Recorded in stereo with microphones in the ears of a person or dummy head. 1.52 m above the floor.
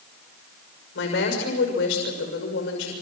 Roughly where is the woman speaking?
Left.